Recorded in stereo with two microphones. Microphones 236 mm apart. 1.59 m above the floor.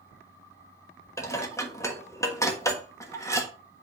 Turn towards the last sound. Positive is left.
turn(degrees=10)  # may be behind; listen again after turning